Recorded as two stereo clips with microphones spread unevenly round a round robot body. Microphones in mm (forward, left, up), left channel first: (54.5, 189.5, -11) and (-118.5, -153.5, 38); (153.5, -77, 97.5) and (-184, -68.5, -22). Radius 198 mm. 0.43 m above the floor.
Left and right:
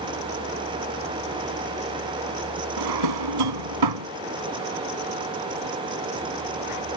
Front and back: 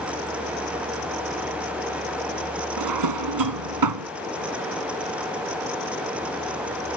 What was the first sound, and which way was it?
A drawer, 150° right.